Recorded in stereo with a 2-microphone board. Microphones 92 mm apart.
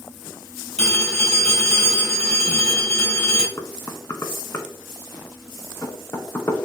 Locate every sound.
0.8 s a phone ringing: 10° left (ahead or behind), 3 m
3.6 s knocking: 30° left (ahead or behind), 0.8 m